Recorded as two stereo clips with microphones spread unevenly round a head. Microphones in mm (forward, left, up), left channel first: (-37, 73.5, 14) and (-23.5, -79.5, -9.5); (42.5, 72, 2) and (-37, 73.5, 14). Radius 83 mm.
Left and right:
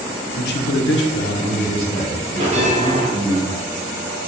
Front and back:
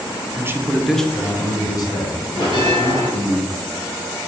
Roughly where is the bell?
Ahead right.